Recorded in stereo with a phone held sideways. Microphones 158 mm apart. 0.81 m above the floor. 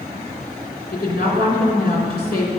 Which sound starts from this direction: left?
A woman speaking, at 0.9 s.